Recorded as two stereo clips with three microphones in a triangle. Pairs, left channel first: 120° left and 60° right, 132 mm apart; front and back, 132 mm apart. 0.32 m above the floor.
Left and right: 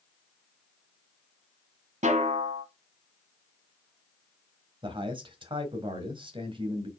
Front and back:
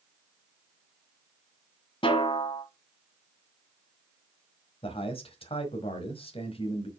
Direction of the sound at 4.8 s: 25° right.